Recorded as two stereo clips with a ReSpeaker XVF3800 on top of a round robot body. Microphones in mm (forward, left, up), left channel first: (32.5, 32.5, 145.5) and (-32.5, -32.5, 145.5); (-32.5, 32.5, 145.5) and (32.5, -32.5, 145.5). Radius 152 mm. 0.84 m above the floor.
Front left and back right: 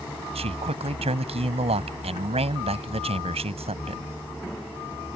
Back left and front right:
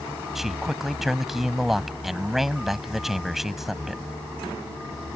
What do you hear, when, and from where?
0.3 s a man speaking: 130° right